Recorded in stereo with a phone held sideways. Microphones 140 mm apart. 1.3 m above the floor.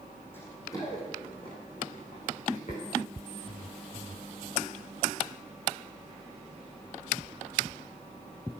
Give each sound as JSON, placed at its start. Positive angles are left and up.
{"t": 0.3, "sound": "running footsteps", "side_deg": 15, "distance_m": 3.5}